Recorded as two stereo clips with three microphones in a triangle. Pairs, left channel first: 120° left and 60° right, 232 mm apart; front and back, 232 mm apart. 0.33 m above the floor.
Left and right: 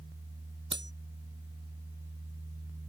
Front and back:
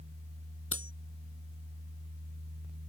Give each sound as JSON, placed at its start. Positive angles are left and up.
{"t": 0.7, "sound": "cutlery clinking", "azimuth_deg": -20}